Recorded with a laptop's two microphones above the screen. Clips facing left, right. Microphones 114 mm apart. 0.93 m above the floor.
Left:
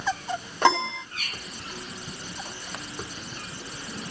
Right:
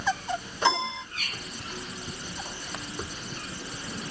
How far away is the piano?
About 1.8 m.